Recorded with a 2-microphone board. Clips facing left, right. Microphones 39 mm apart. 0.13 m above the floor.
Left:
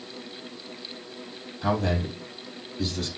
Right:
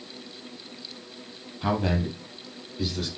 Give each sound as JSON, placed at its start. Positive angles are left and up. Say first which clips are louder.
{"t": 1.6, "sound": "a man speaking", "louder": "even", "side_deg": -20, "distance_m": 4.0}